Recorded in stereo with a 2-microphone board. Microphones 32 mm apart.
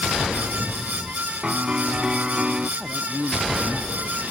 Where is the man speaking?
15° right (ahead or behind).